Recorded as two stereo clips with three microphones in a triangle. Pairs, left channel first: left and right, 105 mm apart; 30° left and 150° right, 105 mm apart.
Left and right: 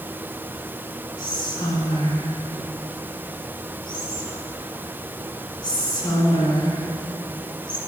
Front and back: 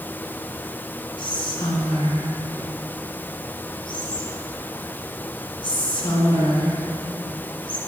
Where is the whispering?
55° left, 2 m.